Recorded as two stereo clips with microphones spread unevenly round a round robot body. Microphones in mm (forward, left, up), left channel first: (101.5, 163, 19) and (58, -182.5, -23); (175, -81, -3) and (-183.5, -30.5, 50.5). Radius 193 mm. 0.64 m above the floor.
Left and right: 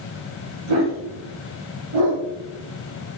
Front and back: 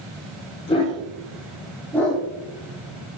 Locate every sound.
0.7 s a dog barking: 80° right, 9 m; by 2.2 s 95° right, 10 m